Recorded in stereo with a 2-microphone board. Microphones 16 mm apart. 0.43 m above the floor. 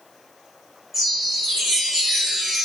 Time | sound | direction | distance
0.9 | a chime | 25° right (ahead or behind) | 1.1 m